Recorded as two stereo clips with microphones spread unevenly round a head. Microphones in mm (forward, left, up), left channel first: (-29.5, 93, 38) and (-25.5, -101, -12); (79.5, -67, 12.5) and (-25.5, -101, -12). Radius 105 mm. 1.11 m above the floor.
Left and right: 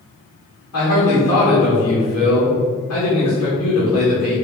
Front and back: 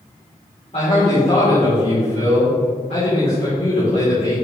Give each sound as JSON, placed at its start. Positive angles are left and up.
{"t": 0.7, "sound": "a man speaking", "azimuth_deg": 80, "distance_m": 2.5}